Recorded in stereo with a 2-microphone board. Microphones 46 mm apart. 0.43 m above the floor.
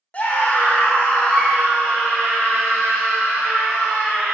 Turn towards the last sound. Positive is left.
turn(degrees=-5)  # may be behind; listen again after turning